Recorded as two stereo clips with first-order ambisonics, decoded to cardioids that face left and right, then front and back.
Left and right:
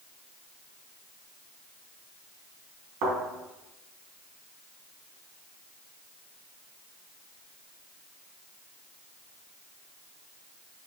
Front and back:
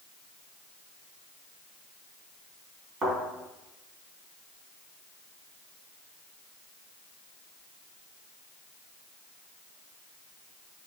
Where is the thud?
110° right, 3.5 m.